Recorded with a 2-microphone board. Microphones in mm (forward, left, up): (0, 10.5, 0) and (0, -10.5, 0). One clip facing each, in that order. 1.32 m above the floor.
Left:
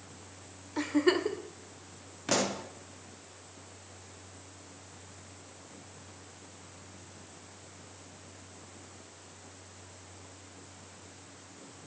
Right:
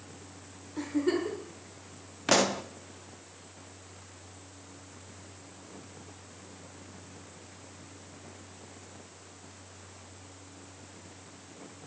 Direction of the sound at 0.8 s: 35° left (ahead or behind).